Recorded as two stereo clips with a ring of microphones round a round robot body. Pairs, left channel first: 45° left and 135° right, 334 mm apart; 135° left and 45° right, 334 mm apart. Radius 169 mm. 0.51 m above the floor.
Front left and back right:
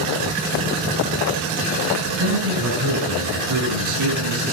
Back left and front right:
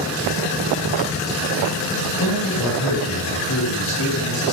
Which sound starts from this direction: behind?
A man speaking, at 2.2 s.